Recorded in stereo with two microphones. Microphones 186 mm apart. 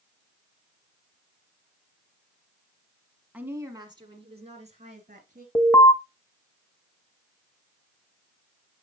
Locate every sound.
3.3 s a woman speaking: 5° right (ahead or behind), 1.3 m; by 5.5 s 45° right (ahead or behind), 2.5 m
5.5 s an alarm: 15° left (ahead or behind), 0.8 m